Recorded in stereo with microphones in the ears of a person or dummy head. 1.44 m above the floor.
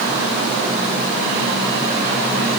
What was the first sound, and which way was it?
Only background noise.